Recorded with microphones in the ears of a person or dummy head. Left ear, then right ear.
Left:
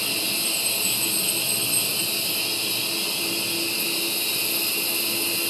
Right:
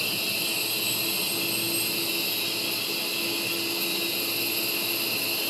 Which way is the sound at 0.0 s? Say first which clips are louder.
Left 2 dB; 65° left (ahead or behind).